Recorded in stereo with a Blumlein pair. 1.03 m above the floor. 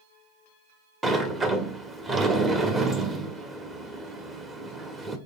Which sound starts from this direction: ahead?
A sliding door, at 1.0 s.